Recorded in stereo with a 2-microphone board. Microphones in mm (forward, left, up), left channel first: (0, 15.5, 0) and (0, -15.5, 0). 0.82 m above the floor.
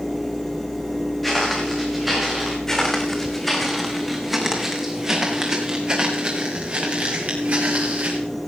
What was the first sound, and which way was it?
Footsteps, 5° left (ahead or behind).